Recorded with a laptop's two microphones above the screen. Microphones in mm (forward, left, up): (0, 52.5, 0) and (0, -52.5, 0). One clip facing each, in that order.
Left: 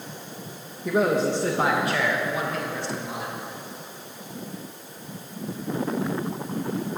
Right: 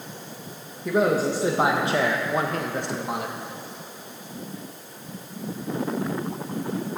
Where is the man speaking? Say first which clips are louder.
Even; centre (ahead or behind), 1.6 m; by 3.4 s 60° right (ahead or behind), 1.5 m.